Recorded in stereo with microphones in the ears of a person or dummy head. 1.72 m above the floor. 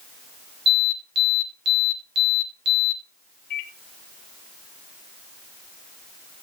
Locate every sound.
0.7 s an alarm: 50° right (ahead or behind), 2.0 m
3.5 s a microwave: 40° left (ahead or behind), 1.0 m